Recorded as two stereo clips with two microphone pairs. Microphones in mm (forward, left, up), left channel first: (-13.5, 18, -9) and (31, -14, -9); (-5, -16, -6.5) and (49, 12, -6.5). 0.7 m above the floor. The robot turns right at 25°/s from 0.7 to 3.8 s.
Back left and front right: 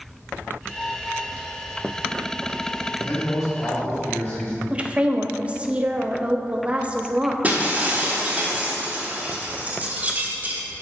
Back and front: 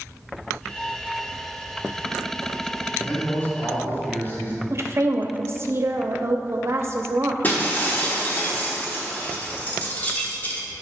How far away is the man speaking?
About 2.5 m.